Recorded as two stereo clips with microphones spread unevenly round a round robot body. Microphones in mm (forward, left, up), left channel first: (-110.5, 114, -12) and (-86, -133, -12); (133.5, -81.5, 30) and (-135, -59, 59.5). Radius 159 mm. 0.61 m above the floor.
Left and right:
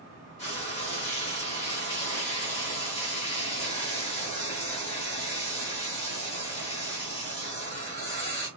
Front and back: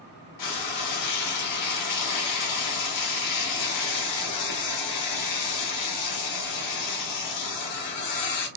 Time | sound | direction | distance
0.4 | frying | 25° left | 0.8 m